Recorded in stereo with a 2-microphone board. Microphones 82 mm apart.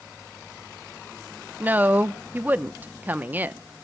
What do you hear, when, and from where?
1.6 s a woman speaking: 25° right (ahead or behind), 0.8 m